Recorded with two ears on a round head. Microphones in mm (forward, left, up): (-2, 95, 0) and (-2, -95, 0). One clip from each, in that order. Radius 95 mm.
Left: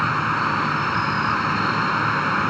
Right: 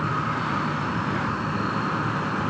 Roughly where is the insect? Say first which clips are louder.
Left 5 dB; left.